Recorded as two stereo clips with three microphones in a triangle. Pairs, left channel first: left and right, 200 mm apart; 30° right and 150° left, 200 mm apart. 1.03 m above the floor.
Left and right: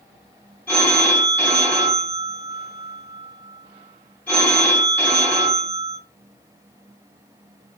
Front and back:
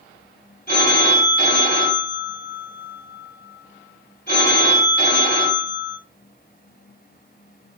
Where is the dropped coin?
No dropped coin in this recording.